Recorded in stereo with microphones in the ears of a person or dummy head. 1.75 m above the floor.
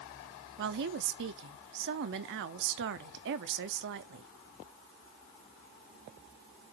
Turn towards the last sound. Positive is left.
turn(degrees=-60)  # may be behind; listen again after turning